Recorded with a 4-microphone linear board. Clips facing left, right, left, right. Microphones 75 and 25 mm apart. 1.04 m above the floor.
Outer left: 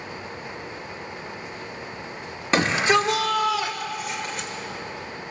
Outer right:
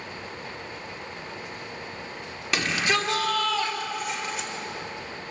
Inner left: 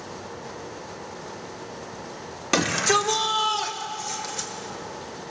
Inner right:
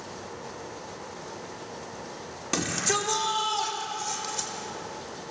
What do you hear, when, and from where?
2.5 s a shout: 35° left (ahead or behind), 3 m; by 4.5 s centre (ahead or behind), 4.5 m